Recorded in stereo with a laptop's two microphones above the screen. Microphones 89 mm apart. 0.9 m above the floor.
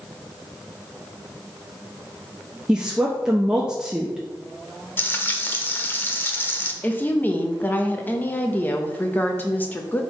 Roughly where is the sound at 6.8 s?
Left.